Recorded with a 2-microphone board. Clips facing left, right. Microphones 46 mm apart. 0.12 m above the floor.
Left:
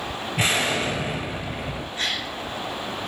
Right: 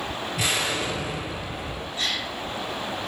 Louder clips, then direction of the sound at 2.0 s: Even; 45° left (ahead or behind).